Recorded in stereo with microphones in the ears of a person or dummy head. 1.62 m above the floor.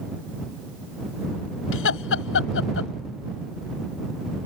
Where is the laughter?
75° left (ahead or behind).